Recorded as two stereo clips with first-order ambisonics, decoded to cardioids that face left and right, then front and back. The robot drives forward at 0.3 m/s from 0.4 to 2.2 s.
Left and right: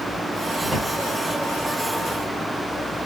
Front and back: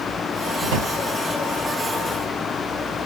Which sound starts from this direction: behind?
A drawer, at 0.6 s.